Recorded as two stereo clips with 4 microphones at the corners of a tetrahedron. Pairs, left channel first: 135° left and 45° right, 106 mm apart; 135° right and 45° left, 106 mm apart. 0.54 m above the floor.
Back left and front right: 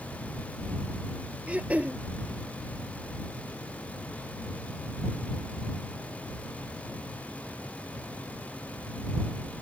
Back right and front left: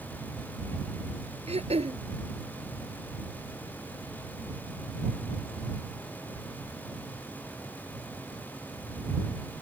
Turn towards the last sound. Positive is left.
turn(degrees=35)